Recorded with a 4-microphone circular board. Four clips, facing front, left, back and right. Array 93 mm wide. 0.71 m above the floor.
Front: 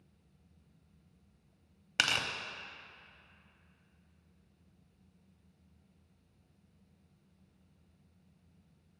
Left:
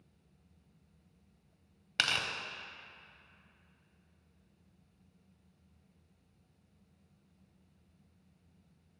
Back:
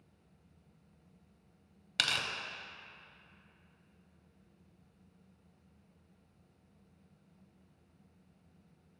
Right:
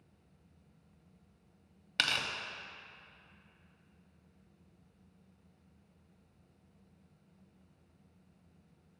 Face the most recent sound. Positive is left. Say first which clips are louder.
# left 1 dB, front 3 dB
turn(degrees=10)